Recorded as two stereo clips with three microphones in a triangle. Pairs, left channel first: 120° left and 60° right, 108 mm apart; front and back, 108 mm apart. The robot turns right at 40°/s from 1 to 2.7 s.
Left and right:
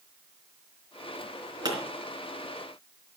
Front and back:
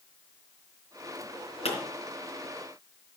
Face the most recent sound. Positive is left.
turn(degrees=35)